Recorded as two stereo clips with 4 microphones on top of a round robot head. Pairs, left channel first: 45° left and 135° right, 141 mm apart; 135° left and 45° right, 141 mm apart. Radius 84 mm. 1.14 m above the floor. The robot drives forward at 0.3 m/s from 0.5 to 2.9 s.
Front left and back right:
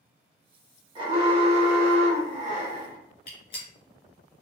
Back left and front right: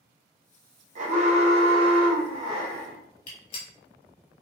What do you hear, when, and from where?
0.9 s an alarm: 80° right, 1.2 m; by 3.0 s 110° right, 1.2 m
3.3 s a gunshot: 95° left, 1.4 m